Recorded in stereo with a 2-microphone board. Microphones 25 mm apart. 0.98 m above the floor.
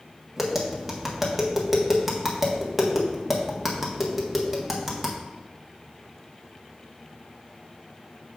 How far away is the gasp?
No gasp in this recording.